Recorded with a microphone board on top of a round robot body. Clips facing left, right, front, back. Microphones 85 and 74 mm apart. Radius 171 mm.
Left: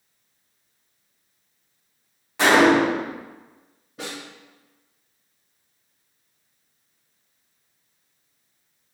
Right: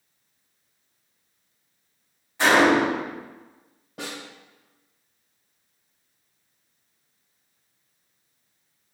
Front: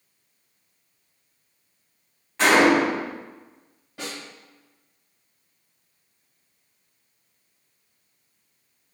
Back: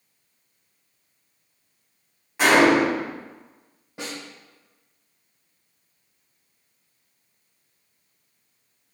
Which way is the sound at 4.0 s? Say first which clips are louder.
Left 1 dB, back 1 dB; 110° right.